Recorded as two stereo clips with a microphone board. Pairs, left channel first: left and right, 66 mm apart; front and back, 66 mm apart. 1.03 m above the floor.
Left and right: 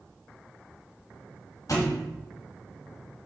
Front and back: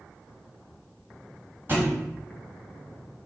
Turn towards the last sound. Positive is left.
turn(degrees=125)